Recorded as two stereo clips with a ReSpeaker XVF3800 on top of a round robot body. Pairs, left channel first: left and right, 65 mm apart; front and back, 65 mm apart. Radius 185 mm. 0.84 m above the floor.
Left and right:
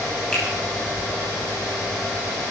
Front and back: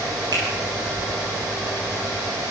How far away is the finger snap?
About 7.5 m.